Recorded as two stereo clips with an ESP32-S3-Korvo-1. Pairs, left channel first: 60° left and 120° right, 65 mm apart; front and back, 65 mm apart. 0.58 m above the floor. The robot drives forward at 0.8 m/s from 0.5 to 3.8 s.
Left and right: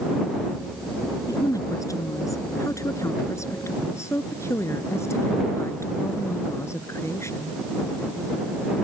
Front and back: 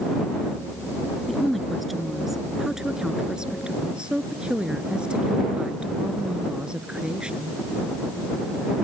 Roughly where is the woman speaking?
Left.